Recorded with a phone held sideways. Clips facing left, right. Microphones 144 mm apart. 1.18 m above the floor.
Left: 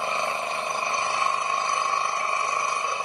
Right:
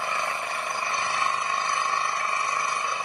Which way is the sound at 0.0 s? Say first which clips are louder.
Left 2 dB; 20° left (ahead or behind).